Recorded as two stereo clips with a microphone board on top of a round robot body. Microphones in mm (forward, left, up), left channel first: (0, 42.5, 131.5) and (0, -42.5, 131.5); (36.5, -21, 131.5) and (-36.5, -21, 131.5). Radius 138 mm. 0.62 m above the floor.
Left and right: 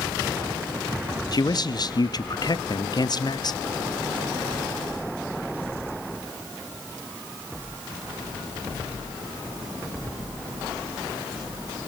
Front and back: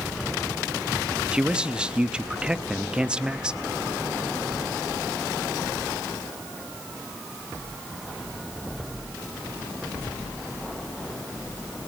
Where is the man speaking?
105° left, 0.8 m.